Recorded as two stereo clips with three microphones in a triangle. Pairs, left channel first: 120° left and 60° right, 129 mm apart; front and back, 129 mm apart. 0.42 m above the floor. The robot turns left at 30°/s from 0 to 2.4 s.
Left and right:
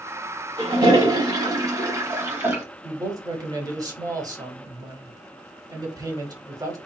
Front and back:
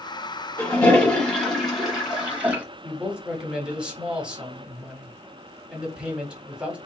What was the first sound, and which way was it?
A toilet flushing, 55° right.